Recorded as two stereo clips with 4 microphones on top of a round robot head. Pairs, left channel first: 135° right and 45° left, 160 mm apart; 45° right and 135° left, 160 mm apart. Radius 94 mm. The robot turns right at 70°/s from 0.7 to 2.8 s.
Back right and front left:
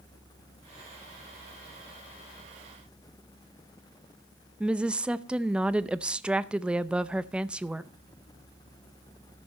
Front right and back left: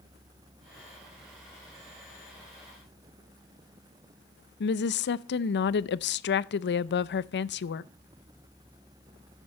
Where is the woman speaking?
40° right, 0.6 m.